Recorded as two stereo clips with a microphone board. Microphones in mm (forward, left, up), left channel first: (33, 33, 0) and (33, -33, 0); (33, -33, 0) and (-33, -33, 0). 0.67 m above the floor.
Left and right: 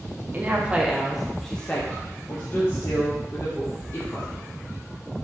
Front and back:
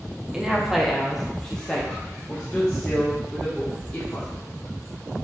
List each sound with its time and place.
0.3 s a woman speaking: 105° right, 0.8 m; by 4.5 s 65° left, 1.8 m